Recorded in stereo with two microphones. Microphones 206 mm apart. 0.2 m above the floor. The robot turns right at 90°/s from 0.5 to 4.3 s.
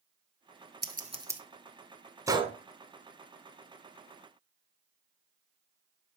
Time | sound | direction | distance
0.8 | scissors | 55° right (ahead or behind) | 1.0 m
2.3 | a gunshot | 15° right (ahead or behind) | 0.8 m